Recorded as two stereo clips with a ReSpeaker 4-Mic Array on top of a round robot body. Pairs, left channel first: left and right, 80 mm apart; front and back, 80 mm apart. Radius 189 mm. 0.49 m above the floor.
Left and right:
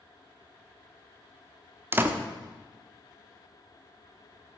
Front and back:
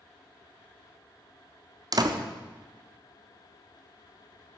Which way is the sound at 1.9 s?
150° right.